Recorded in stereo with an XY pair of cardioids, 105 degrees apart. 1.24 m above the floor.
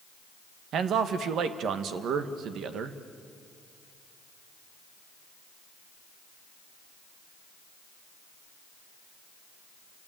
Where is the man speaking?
70° right, 1.6 m.